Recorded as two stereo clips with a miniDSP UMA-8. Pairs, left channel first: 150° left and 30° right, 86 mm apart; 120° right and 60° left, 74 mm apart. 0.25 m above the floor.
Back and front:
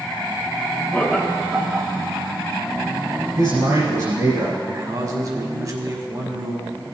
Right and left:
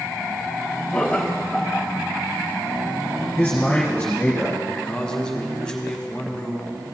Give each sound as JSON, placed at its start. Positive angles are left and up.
{"t": 0.9, "sound": "laughter", "azimuth_deg": -175, "distance_m": 1.0}
{"t": 3.4, "sound": "a man speaking", "azimuth_deg": -60, "distance_m": 2.0}
{"t": 4.7, "sound": "a man speaking", "azimuth_deg": -45, "distance_m": 1.3}